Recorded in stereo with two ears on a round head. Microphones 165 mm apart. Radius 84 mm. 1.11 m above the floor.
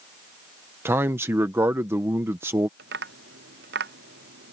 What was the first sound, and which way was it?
A man speaking, 15° right (ahead or behind).